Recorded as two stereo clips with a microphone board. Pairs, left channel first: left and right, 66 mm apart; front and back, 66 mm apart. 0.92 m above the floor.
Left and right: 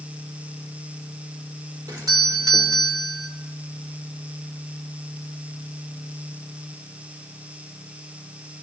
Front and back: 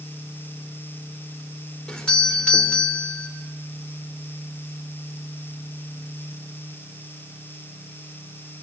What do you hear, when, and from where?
1.9 s a doorbell: 75° right, 4 m